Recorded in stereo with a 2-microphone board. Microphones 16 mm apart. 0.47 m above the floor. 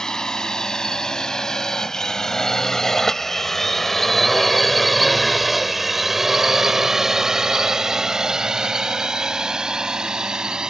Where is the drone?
55° left (ahead or behind); by 10.7 s 65° right (ahead or behind).